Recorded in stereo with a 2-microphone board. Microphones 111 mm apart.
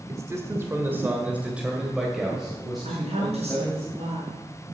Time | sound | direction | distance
0.1 | a man speaking | 30° right (ahead or behind) | 1.6 m
2.9 | a woman speaking | 75° right (ahead or behind) | 5 m